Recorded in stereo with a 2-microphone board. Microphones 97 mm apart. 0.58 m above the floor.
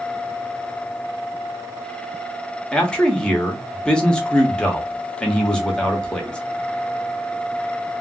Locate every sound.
2.7 s a man speaking: 10° left (ahead or behind), 0.9 m